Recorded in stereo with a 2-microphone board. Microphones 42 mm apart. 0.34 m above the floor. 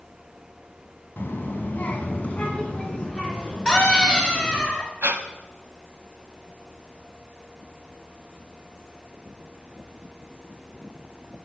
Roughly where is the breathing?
Right.